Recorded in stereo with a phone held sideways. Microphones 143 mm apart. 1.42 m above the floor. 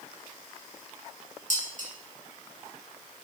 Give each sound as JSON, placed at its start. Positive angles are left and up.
{"t": 1.5, "sound": "dishes clattering", "side_deg": -65, "distance_m": 1.8}